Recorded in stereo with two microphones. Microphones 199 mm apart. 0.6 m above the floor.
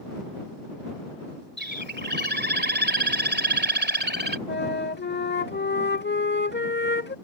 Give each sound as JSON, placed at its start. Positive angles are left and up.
{"t": 1.6, "sound": "a bird", "side_deg": -60}
{"t": 4.5, "sound": "a flute", "side_deg": 60}